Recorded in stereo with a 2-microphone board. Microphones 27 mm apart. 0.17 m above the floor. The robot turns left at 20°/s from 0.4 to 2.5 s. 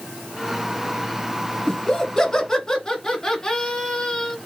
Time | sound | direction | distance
1.7 | laughter | 25° left (ahead or behind) | 1.7 m